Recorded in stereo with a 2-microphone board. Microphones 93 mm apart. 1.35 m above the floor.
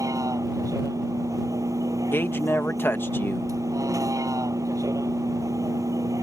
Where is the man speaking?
25° left (ahead or behind).